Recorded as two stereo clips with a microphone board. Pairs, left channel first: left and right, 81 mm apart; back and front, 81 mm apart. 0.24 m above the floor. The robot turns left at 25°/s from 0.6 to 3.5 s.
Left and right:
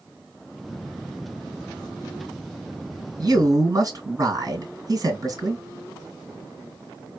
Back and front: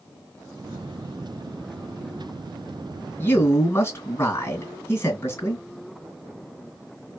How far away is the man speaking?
About 2.5 m.